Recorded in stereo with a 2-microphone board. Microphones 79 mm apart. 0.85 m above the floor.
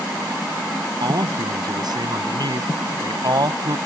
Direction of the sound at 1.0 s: 65° right (ahead or behind).